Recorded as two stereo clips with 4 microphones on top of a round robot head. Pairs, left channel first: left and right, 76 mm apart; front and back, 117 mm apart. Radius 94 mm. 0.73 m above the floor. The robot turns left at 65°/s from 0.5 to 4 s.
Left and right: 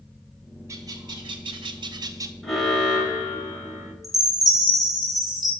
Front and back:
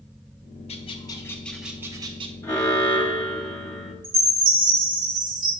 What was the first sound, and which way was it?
A bird, 35° right.